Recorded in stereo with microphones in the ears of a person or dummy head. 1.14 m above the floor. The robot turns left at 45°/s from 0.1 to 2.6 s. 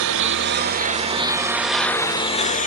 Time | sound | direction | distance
0.0 | a lawn mower | 80° right | ?